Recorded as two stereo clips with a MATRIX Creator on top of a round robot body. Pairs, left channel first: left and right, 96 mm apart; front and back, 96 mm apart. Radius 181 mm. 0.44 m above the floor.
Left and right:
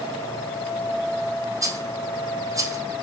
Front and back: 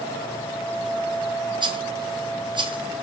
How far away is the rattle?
About 3 m.